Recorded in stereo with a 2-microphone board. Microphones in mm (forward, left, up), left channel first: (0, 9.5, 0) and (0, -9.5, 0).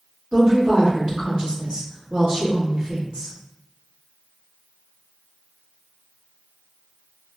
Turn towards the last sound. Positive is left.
turn(degrees=-50)  # may be behind; listen again after turning